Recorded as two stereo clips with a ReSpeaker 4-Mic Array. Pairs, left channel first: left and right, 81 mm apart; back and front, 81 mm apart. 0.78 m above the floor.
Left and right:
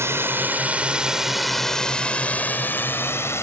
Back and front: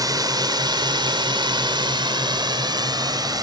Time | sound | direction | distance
0.0 | a drone | 35° right | ?